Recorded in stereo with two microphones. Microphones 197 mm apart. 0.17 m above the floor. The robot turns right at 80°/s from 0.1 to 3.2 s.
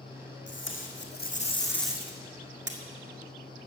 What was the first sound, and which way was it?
Tape being pulled, 70° left.